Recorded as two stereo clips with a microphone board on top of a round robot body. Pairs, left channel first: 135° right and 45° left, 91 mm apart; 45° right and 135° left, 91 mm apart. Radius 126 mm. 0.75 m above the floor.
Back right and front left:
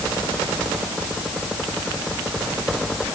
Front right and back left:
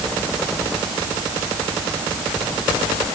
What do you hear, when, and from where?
Only background noise.